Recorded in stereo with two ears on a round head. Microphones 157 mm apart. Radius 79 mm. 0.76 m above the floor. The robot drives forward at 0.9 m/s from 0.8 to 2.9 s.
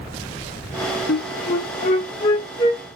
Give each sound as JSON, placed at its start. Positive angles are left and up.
{"t": 1.1, "sound": "a flute", "side_deg": 50, "distance_m": 0.9}